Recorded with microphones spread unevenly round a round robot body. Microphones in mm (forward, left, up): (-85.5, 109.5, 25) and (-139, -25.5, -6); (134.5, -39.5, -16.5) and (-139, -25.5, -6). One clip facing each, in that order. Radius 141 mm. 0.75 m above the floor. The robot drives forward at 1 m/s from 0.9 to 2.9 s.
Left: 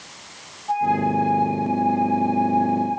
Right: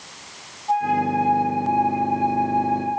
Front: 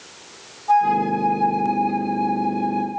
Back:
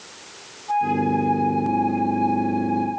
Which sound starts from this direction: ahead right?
A flute, at 0.7 s.